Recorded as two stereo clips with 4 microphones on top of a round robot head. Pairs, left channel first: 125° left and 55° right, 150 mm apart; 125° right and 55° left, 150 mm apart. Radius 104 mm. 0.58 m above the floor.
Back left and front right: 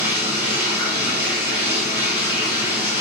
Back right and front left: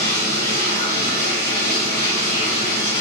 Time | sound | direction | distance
0.0 | running water | 130° right | 2 m